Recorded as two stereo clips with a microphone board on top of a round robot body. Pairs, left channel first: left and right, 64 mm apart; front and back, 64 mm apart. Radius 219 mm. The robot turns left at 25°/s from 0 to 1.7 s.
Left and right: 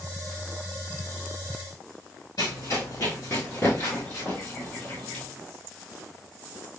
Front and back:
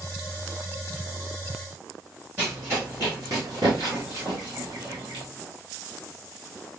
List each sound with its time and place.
2.4 s running footsteps: 115° left, 1.2 m; by 5.2 s 175° left, 2 m